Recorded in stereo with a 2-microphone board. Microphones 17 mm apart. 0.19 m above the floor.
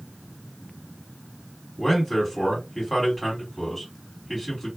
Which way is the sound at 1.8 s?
5° right (ahead or behind).